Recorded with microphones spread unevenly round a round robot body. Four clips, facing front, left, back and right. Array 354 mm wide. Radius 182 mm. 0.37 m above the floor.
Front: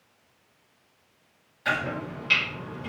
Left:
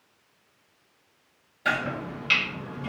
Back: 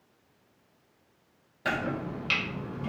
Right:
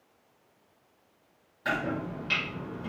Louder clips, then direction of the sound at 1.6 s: Left 2 dB, front 2 dB; 170° left.